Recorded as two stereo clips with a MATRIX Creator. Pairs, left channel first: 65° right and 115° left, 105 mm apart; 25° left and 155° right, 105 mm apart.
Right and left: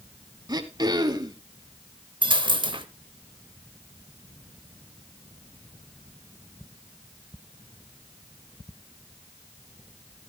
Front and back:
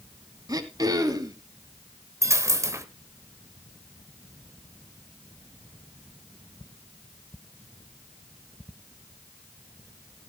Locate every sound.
0.5 s throat clearing: 155° left, 1.1 m
2.2 s a dropped coin: 145° left, 0.9 m